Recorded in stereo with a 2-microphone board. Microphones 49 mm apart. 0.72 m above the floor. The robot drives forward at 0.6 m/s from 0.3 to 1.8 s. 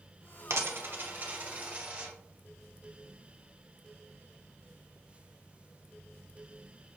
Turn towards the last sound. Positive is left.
turn(degrees=-25)  # may be behind; listen again after turning